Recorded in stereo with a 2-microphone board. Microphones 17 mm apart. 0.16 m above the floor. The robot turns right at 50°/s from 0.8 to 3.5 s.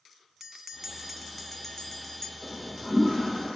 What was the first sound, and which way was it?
A bell, 35° right.